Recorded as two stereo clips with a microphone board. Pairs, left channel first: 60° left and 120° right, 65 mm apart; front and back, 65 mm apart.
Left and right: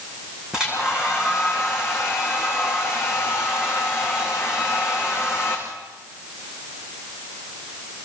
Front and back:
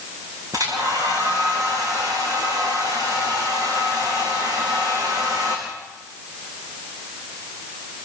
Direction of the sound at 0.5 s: 160° left.